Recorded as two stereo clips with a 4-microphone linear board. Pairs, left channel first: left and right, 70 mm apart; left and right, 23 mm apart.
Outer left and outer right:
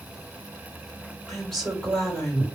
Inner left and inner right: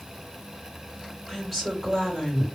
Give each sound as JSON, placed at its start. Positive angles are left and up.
{"t": 1.3, "sound": "a woman speaking", "side_deg": 10, "distance_m": 2.0}